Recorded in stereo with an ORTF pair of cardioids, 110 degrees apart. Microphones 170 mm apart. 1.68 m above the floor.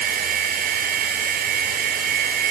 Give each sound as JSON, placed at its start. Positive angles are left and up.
{"t": 0.0, "sound": "a machine running", "azimuth_deg": -60}